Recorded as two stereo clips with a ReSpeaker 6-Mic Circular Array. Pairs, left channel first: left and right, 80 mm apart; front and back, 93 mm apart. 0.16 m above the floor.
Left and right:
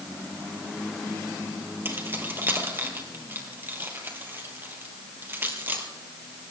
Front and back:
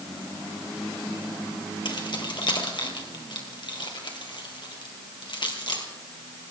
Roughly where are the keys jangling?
Ahead right.